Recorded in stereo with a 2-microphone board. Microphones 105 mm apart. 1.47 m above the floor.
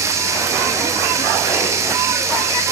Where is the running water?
30° right (ahead or behind), 2.0 m.